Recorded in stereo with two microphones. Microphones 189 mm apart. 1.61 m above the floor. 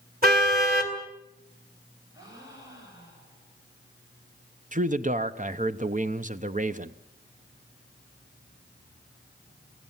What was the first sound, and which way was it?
A car horn, 55° right (ahead or behind).